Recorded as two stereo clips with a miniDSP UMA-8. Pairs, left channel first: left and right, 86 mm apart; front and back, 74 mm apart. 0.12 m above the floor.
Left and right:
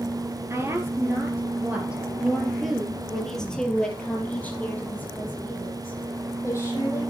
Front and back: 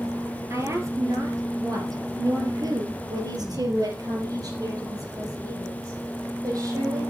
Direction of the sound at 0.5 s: 140° right.